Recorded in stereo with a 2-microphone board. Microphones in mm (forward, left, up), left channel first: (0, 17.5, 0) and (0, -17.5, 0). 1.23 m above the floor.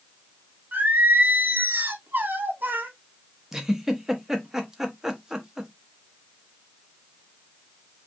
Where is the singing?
60° right (ahead or behind), 0.8 m.